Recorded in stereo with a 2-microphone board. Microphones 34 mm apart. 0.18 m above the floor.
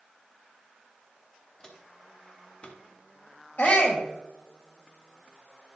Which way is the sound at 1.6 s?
15° left (ahead or behind).